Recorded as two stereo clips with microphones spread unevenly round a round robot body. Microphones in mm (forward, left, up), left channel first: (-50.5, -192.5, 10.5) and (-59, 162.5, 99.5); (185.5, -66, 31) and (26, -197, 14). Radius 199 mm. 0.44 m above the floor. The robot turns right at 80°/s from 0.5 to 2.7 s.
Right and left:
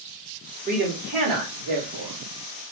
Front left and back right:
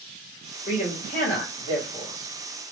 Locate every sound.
0.7 s a man speaking: 15° left, 1.6 m; by 2.7 s straight behind, 1.6 m